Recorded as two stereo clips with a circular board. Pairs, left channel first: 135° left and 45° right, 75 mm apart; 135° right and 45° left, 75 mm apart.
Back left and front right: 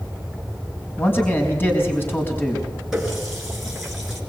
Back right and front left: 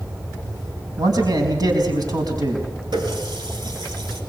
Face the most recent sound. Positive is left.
turn(degrees=40)